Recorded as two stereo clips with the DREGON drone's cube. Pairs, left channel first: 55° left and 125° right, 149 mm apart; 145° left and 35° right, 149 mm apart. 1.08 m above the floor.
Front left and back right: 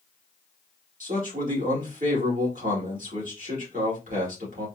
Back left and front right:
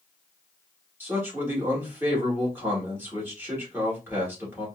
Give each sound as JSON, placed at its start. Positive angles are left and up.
{"t": 1.0, "sound": "a man speaking", "azimuth_deg": -110, "distance_m": 1.8}